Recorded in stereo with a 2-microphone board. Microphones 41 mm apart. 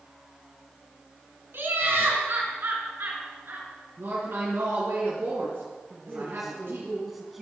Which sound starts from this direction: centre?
A man speaking, at 5.9 s.